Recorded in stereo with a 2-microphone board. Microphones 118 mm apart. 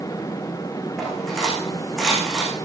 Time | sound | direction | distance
1.0 | cutlery clinking | centre (ahead or behind) | 9.5 m